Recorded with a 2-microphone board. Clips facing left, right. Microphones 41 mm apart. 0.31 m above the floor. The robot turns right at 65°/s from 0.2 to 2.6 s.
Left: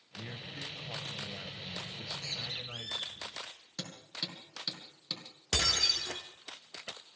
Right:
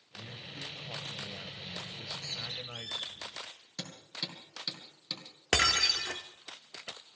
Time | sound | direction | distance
0.1 | a man speaking | 90° left | 1.0 m
1.9 | a bird | 65° left | 2.5 m
3.8 | hammering | 5° left (ahead or behind) | 3.5 m
5.5 | breaking glass | 50° right (ahead or behind) | 1.3 m